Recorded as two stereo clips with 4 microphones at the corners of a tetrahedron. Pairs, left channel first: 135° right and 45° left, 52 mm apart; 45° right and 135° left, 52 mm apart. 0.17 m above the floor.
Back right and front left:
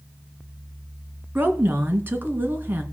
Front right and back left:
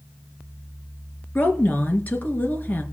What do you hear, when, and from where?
1.4 s a woman speaking: straight ahead, 2.5 m